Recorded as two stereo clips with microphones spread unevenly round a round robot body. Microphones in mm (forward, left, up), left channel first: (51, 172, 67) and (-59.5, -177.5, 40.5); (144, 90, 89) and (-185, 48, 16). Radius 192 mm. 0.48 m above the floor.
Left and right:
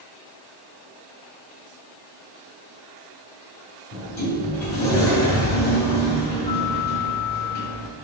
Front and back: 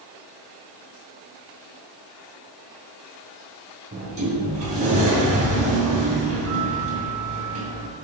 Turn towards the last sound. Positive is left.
turn(degrees=120)